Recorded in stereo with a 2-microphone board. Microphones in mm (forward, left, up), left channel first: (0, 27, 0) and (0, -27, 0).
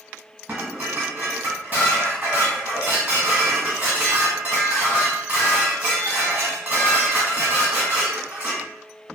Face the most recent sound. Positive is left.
turn(degrees=-35)  # may be behind; listen again after turning